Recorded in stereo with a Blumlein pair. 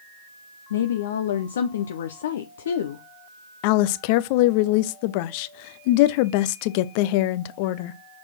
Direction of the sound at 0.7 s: 60° left.